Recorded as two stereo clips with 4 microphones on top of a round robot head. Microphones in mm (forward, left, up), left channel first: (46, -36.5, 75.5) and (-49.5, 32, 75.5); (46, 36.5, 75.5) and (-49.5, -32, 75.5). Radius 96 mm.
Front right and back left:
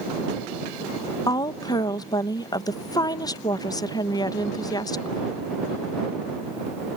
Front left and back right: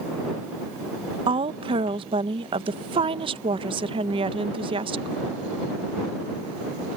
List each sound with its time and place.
1.3 s a woman speaking: 95° right